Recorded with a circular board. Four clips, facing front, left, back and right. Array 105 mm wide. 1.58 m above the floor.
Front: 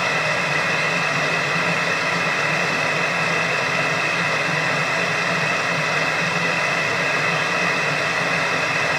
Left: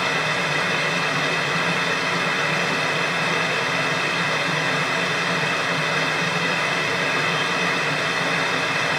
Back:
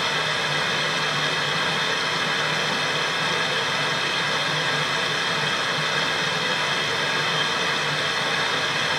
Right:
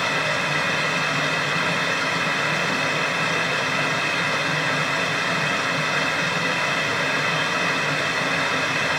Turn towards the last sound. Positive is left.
turn(degrees=-5)